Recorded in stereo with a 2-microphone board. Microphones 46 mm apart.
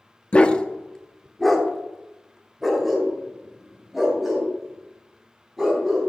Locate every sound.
0.3 s a dog barking: 25° left (ahead or behind), 0.6 m; by 6.1 s 10° right (ahead or behind), 4.5 m